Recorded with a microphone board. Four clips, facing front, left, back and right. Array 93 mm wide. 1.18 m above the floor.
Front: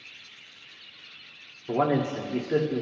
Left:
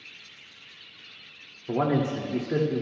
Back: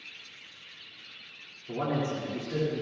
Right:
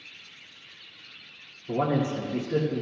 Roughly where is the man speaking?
Ahead left.